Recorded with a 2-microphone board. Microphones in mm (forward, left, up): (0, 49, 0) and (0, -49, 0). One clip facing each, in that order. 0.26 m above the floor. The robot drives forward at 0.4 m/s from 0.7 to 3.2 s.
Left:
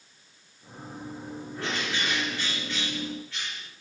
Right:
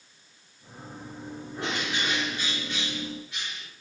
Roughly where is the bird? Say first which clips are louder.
Right 1 dB; right.